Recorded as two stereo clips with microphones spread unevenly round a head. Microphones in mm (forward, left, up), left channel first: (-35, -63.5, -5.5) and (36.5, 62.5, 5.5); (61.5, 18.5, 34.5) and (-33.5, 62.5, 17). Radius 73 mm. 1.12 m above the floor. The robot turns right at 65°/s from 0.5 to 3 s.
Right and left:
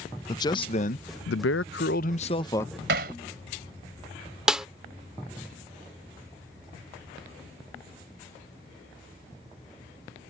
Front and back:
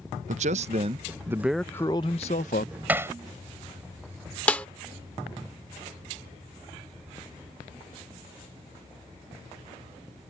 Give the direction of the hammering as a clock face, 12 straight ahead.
9 o'clock.